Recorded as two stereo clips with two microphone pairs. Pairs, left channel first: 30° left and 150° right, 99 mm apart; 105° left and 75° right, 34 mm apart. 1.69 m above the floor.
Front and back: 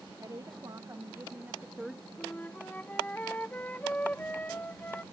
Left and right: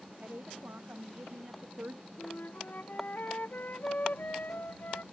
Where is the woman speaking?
100° right; by 2.1 s 55° right.